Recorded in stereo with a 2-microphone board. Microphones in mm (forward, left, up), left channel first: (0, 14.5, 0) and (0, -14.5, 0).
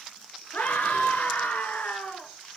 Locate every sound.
0.5 s a scream: 70° left (ahead or behind), 4.5 m